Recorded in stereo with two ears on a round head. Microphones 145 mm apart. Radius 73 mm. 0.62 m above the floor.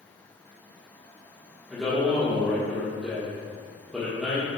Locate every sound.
1.7 s a man speaking: 5° left (ahead or behind), 1.5 m